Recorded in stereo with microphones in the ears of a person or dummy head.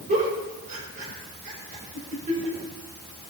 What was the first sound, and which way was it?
A giggle, 50° right (ahead or behind).